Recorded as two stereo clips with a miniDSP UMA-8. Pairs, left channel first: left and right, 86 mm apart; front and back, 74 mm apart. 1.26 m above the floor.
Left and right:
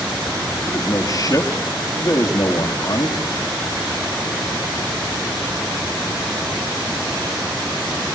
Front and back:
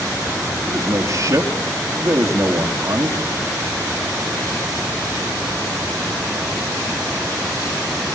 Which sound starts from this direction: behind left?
A man speaking, at 0.7 s.